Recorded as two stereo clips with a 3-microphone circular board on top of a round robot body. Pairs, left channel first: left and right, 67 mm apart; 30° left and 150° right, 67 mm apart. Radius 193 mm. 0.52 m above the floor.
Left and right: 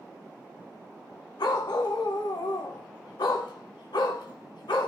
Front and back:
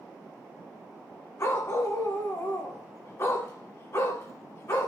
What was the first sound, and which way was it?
A dog barking, 85° left.